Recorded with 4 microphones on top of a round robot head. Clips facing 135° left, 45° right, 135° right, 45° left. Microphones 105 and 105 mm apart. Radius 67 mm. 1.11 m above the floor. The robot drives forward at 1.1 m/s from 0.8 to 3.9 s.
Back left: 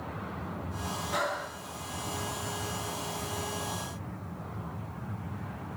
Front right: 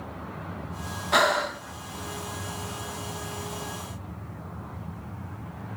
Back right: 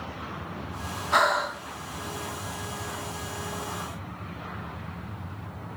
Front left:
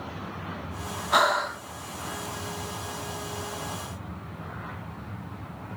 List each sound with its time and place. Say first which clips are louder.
1.1 s breathing: front right 11 dB, even; 35° right, 1.0 m; by 1.6 s 65° right, 0.6 m